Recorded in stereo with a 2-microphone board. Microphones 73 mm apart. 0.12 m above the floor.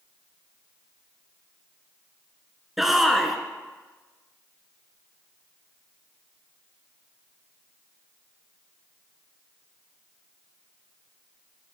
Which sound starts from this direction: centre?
A shout, at 2.8 s.